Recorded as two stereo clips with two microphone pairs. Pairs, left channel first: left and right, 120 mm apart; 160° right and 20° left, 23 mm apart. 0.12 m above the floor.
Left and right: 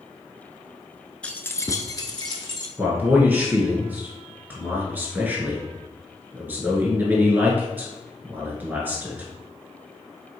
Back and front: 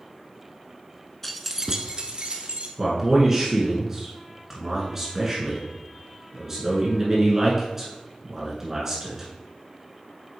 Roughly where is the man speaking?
Ahead right.